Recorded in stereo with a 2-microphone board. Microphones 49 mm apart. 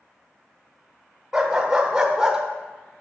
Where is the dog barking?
10° right (ahead or behind), 1.1 m.